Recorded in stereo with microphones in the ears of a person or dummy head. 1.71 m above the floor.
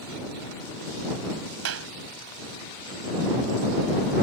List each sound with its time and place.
1.6 s a clap: 85° right